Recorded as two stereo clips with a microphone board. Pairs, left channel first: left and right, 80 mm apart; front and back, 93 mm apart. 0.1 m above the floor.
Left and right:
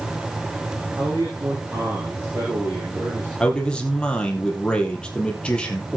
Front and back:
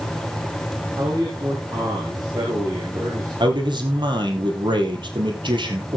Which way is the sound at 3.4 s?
165° left.